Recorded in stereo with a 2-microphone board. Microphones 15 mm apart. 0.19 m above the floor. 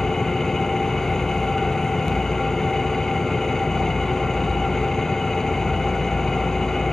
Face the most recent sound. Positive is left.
turn(degrees=40)  # may be behind; listen again after turning